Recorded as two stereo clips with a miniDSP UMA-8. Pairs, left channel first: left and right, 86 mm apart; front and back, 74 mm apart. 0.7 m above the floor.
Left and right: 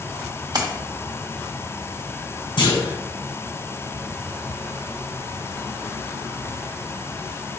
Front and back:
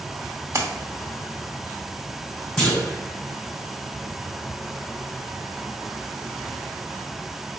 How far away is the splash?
About 0.9 m.